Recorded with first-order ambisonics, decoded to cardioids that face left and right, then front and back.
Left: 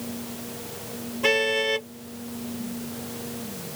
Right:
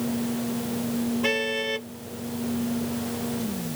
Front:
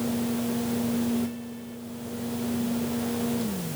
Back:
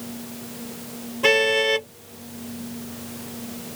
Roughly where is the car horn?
Behind.